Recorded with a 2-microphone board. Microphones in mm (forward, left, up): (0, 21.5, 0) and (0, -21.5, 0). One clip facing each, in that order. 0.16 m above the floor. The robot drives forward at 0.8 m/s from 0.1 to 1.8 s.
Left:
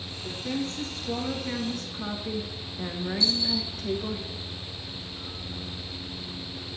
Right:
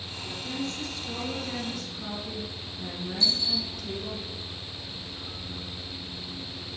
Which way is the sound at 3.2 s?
45° right (ahead or behind).